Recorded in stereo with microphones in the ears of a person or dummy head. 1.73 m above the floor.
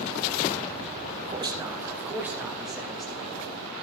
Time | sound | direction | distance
1.3 | a man speaking | 25° right (ahead or behind) | 1.6 m